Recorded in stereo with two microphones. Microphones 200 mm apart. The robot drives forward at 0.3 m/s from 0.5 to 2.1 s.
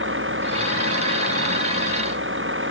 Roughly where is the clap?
No clap in this recording.